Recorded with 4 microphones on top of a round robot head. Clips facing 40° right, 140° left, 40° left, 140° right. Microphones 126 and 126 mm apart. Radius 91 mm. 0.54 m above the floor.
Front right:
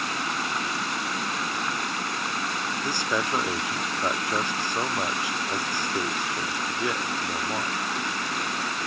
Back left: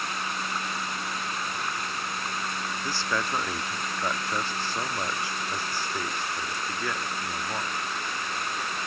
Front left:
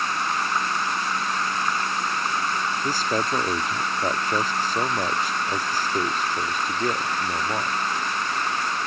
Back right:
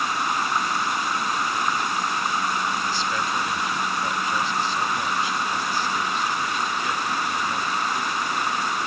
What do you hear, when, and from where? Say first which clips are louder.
0.0 s running water: front right 3 dB, back right 1 dB; 60° right
2.8 s a man speaking: front right 2 dB, front left 2 dB; 25° left